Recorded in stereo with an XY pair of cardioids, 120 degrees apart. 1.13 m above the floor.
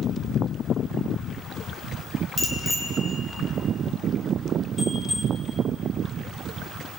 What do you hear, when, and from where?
2.4 s a bicycle bell: 30° left, 4.5 m